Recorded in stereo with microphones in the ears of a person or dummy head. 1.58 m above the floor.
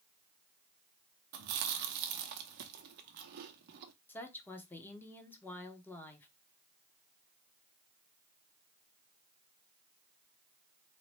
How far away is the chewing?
About 0.6 m.